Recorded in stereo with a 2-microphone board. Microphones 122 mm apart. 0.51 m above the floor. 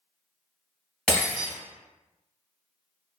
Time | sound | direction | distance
1.1 | breaking glass | 5° left (ahead or behind) | 1.5 m